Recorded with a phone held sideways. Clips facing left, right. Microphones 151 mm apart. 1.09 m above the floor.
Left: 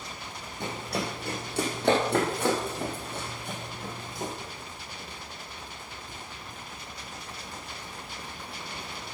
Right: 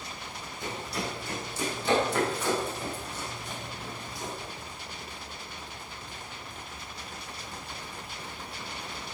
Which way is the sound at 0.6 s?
70° left (ahead or behind).